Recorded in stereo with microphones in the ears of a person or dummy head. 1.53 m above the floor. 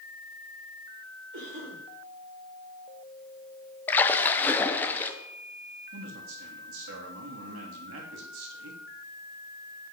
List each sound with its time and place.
1.3 s a cough: 70° right (ahead or behind), 5 m
3.9 s a splash: 15° left (ahead or behind), 0.9 m
5.9 s a man speaking: 85° right, 2.5 m